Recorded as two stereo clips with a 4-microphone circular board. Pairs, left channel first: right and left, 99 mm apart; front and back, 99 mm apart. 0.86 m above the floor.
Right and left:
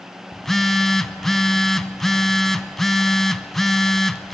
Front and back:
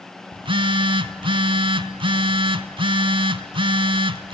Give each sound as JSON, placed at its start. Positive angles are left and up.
{"t": 0.3, "sound": "a phone buzzing", "azimuth_deg": -175, "distance_m": 1.1}